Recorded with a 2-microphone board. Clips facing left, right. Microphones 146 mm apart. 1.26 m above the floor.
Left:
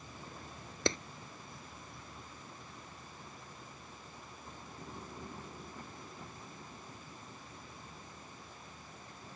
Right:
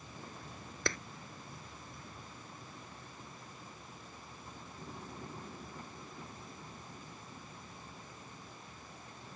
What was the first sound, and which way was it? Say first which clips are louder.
A clap: left 4 dB; 20° left (ahead or behind).